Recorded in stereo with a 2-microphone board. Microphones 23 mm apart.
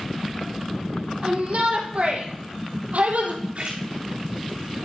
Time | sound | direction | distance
1.2 | a shout | 50° right (ahead or behind) | 3.5 m
3.5 | a splash | 55° right (ahead or behind) | 3.5 m